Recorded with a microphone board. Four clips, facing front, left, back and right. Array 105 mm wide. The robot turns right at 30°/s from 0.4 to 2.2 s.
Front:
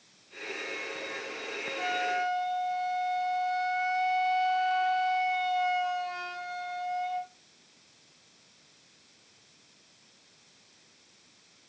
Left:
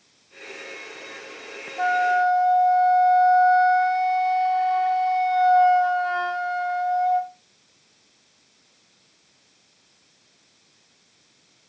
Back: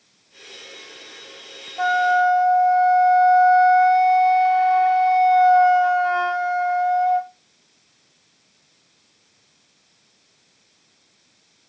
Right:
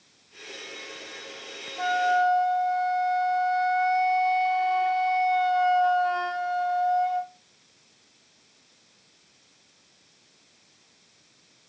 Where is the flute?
160° left, 0.6 m; by 7.3 s 175° left, 0.6 m.